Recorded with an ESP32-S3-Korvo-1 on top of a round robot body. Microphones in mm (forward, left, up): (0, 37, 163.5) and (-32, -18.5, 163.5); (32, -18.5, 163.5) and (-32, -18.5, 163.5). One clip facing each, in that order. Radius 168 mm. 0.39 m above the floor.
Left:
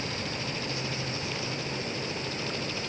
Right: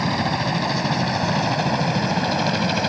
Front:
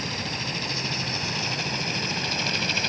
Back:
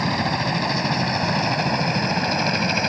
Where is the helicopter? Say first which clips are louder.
Right 12 dB, back 10 dB; 145° right; by 2.9 s 125° right.